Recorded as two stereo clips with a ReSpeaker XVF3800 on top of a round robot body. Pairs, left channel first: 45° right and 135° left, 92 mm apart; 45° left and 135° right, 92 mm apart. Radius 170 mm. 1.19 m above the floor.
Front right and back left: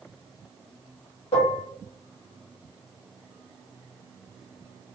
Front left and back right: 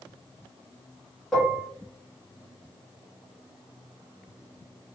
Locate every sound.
1.3 s dishes clattering: 40° right, 1.1 m